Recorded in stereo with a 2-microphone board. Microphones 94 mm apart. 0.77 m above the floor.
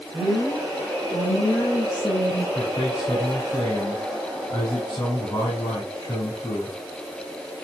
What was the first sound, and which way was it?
A woman speaking, 30° left (ahead or behind).